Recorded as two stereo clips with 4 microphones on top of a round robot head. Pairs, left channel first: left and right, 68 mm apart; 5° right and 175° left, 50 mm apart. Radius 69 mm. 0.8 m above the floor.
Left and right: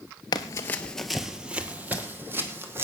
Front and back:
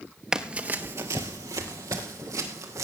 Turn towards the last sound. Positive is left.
turn(degrees=-145)